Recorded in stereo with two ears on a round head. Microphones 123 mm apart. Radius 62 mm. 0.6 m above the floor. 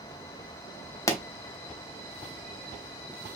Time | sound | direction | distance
1.1 | a pop | 20° left (ahead or behind) | 0.6 m